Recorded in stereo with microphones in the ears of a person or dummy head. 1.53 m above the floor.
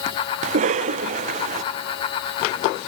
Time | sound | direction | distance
0.4 | a cough | 40° right (ahead or behind) | 0.6 m